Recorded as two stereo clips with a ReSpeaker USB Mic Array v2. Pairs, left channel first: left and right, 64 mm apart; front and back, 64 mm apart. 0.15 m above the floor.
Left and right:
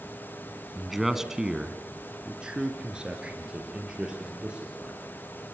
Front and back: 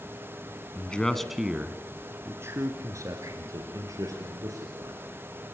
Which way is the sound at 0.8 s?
5° right.